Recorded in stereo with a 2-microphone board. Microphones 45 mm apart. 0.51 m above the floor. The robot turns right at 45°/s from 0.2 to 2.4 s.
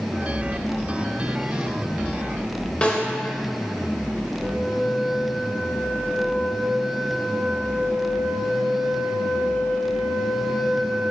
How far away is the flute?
About 1.9 m.